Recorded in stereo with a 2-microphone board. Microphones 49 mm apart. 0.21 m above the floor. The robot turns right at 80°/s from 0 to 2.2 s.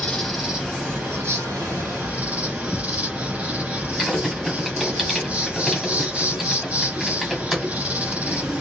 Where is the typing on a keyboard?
5° right (ahead or behind), 1.3 m.